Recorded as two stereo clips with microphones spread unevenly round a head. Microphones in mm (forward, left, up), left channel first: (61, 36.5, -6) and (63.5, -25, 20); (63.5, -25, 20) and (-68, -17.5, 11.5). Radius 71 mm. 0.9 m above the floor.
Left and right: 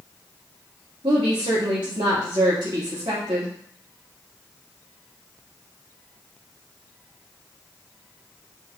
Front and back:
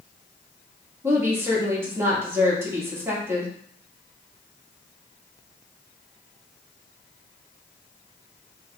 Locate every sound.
1.0 s a woman speaking: 115° right, 2 m